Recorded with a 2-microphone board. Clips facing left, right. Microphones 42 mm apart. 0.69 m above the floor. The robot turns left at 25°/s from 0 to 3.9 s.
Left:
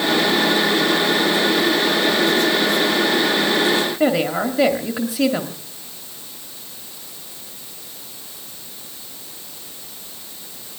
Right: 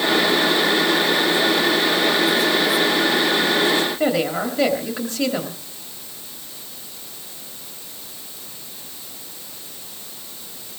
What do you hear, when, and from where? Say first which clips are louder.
4.0 s a woman speaking: left 2 dB; 10° left (ahead or behind), 1.8 m